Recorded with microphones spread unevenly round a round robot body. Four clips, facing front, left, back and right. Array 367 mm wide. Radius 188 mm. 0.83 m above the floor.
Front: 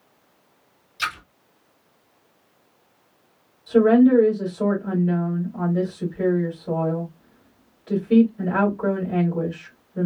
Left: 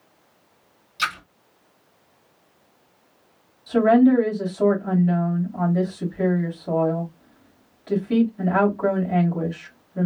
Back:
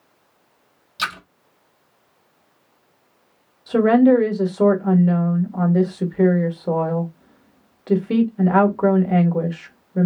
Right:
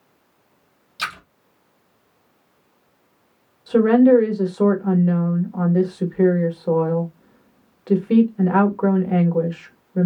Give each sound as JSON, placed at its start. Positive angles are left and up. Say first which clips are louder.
{"t": 1.0, "sound": "a splash", "louder": "left 3 dB, back 2 dB", "azimuth_deg": -175, "distance_m": 1.2}
{"t": 3.7, "sound": "a woman speaking", "louder": "right 2 dB, back 1 dB", "azimuth_deg": -155, "distance_m": 1.7}